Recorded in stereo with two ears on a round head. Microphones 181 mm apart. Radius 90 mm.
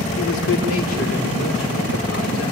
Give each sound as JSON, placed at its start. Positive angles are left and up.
{"t": 0.2, "sound": "a man speaking", "side_deg": 75, "distance_m": 3.0}